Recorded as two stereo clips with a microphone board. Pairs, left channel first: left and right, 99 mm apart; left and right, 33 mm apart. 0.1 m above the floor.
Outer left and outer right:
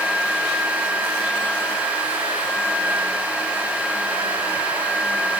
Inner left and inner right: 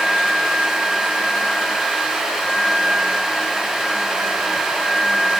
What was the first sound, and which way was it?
Only background noise.